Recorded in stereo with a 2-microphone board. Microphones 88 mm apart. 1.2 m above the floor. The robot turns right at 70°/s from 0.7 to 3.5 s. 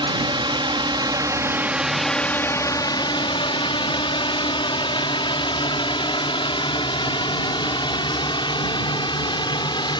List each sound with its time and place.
0.0 s a drone: 70° right (ahead or behind); by 10.0 s 60° left (ahead or behind)